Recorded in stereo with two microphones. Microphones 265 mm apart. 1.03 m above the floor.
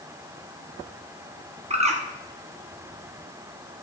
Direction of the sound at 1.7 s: 25° right (ahead or behind).